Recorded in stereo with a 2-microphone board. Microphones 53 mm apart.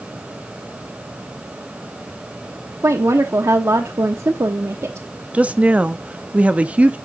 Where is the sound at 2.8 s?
70° right (ahead or behind), 1.1 m.